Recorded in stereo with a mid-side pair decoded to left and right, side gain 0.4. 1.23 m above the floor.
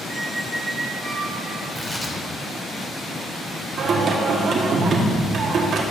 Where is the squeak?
30° right, 1.5 m.